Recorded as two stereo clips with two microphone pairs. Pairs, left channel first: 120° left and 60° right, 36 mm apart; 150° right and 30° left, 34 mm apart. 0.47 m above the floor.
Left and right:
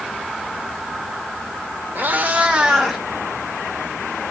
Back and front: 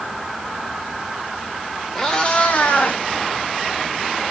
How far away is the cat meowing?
About 0.8 m.